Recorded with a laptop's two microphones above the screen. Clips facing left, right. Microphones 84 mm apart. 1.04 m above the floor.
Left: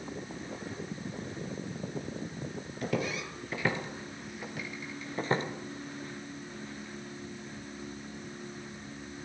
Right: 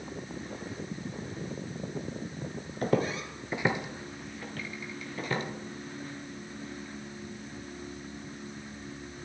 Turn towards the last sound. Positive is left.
turn(degrees=35)  # may be behind; listen again after turning